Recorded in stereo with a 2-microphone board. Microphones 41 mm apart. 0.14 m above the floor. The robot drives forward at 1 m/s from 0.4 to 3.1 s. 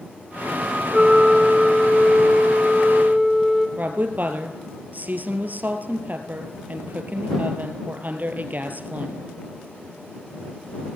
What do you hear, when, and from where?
0.9 s a flute: 15° right (ahead or behind), 0.6 m; by 3.7 s 5° right (ahead or behind), 2 m
3.8 s a woman speaking: 50° right (ahead or behind), 2.5 m